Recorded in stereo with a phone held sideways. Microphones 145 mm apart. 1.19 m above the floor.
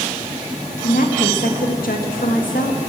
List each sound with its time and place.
0.8 s a woman speaking: 80° left, 1.4 m